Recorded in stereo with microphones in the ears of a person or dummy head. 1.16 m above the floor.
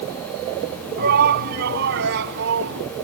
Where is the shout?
50° right (ahead or behind); by 2.8 s 60° right (ahead or behind).